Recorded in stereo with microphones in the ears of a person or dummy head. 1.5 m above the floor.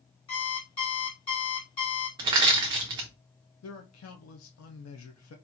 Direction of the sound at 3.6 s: 85° left.